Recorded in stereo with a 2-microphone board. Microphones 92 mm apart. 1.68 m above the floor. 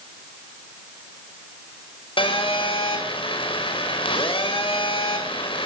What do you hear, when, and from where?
2.2 s a phone buzzing: 70° left (ahead or behind), 4.5 m